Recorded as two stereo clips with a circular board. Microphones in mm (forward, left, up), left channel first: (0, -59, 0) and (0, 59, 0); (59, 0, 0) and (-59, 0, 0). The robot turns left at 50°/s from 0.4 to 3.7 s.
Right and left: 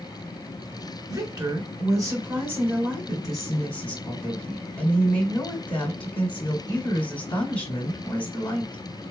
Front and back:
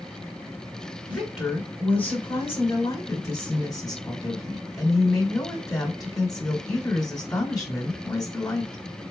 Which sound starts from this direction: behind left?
A woman speaking, at 1.1 s.